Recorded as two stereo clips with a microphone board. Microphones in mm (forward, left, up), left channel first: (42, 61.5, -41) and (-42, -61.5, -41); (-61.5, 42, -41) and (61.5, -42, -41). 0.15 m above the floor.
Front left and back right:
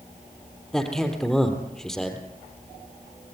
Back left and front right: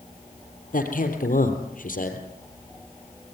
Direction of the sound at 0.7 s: 140° left.